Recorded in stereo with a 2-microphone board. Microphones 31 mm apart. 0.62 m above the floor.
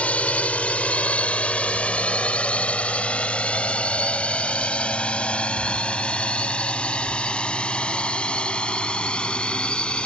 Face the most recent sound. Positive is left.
turn(degrees=45)  # may be behind; listen again after turning